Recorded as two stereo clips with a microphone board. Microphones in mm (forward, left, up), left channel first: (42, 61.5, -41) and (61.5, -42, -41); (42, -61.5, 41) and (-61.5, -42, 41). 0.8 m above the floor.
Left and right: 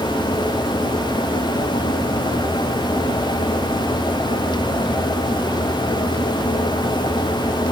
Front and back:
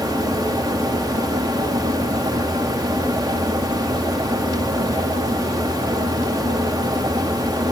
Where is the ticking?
I don't hear ticking.